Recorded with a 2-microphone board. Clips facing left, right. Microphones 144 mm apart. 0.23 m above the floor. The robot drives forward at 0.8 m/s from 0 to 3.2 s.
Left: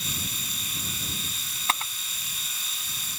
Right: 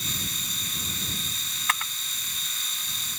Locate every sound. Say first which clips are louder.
1.7 s a camera shutter: left 2 dB; 30° left (ahead or behind); by 1.9 s 25° left (ahead or behind)